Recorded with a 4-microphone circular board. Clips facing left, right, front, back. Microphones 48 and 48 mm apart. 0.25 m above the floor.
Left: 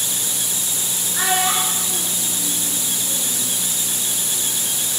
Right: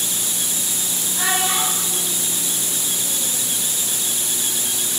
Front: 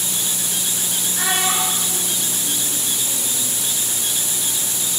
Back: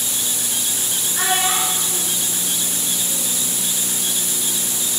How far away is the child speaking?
About 2.5 m.